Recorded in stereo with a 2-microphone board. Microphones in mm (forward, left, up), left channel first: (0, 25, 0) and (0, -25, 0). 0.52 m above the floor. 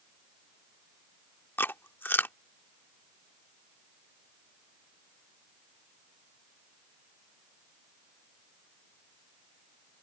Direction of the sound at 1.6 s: 45° left (ahead or behind).